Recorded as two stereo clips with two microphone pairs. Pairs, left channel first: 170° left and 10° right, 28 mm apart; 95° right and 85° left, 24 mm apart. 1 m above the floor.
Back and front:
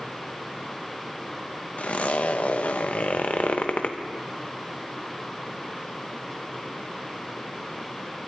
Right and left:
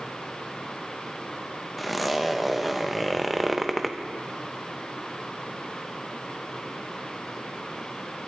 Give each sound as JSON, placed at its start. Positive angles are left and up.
{"t": 1.8, "sound": "a zipper", "azimuth_deg": 170, "distance_m": 0.9}